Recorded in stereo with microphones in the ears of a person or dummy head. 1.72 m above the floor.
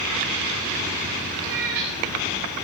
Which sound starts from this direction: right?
A cat meowing, at 1.4 s.